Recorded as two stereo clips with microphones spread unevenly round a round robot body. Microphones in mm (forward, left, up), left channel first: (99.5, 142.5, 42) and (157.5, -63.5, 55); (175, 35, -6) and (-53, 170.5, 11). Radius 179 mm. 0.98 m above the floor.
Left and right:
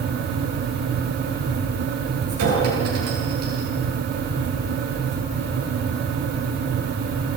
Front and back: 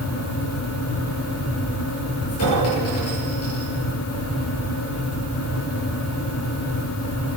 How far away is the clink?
About 10 m.